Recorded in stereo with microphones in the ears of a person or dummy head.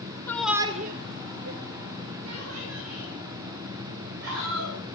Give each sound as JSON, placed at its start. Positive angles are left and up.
{"t": 0.3, "sound": "a shout", "side_deg": 10, "distance_m": 0.9}